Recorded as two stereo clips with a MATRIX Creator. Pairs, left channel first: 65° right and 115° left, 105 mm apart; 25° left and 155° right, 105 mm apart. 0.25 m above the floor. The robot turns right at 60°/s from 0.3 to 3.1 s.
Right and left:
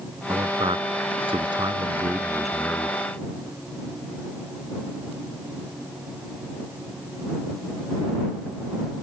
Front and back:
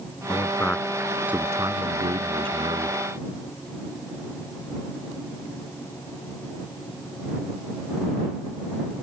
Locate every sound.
0.3 s a man speaking: 70° left; by 3.0 s 125° right